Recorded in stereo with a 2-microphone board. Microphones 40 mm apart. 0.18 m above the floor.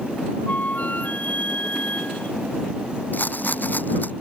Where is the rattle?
50° left (ahead or behind).